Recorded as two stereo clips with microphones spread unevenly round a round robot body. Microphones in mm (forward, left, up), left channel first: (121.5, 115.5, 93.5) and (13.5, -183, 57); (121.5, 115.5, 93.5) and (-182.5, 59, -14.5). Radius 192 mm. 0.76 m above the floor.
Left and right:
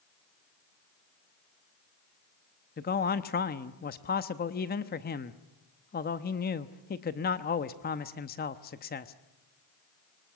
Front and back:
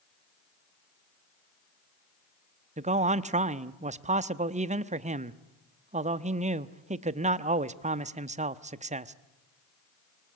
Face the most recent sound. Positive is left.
turn(degrees=135)